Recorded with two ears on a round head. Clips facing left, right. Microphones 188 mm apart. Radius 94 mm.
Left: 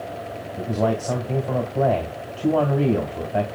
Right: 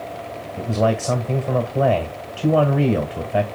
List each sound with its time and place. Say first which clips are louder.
0.6 s a man speaking: right 2 dB; 30° right (ahead or behind), 1.9 m